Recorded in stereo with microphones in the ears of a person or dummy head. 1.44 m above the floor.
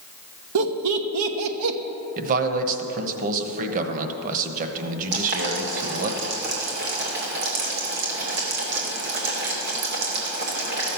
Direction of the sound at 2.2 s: 45° right (ahead or behind).